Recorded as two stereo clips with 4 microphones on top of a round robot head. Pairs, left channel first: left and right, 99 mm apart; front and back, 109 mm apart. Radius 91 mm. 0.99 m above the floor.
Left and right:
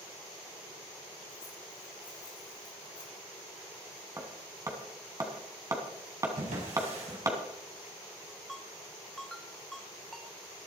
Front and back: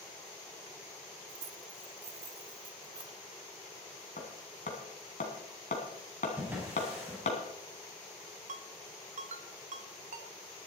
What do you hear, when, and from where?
1.3 s keys jangling: 165° left, 1.0 m; by 3.2 s 135° left, 1.7 m
4.2 s hammering: 35° right, 2 m
6.4 s a drawer: 105° right, 4.5 m
8.5 s a ringtone: straight behind, 1.0 m